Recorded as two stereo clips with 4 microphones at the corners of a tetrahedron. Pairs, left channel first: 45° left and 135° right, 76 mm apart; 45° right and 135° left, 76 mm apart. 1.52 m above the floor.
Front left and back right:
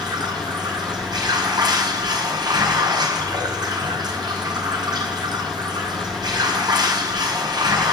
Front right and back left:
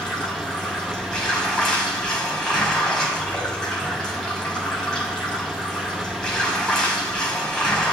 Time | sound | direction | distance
0.0 | running water | 125° right | 5.5 m